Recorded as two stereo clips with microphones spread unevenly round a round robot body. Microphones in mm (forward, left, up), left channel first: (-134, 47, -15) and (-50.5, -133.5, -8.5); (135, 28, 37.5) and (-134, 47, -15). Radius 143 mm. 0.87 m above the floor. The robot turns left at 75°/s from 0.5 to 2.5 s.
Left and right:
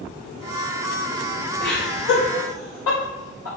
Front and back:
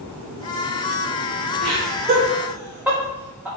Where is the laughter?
160° left, 3 m; by 3.5 s 90° left, 3 m.